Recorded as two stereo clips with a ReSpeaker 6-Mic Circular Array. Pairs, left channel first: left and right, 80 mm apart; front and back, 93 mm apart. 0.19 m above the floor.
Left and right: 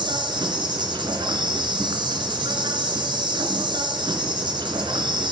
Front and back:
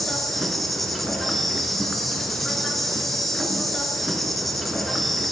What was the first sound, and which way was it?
An insect, 90° right.